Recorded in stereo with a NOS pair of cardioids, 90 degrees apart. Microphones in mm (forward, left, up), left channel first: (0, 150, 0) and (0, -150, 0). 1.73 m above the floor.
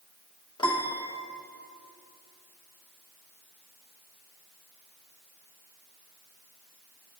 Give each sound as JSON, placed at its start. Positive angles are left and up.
{"t": 0.6, "sound": "a piano", "azimuth_deg": 15, "distance_m": 1.5}